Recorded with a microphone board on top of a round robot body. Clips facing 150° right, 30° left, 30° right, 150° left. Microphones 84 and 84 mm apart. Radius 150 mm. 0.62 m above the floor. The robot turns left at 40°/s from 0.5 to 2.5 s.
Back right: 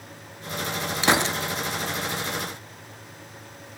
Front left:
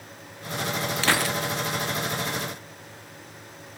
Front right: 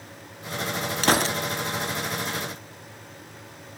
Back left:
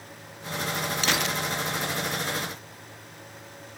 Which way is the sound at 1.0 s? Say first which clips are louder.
Back right 4 dB, front right 7 dB; 80° right.